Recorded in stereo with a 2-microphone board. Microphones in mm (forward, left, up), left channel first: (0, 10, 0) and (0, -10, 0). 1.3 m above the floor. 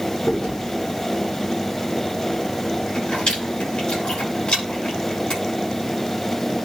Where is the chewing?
50° left (ahead or behind), 9 m.